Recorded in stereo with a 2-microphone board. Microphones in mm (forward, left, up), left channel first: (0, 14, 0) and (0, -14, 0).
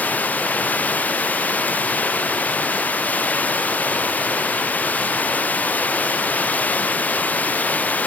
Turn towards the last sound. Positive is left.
turn(degrees=90)